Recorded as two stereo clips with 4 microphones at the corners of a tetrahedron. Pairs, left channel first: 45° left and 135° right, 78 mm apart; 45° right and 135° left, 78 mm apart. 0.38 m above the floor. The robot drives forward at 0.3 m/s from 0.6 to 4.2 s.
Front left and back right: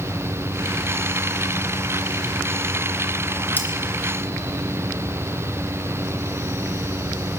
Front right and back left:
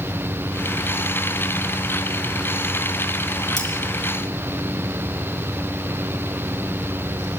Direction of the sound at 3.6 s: 20° right.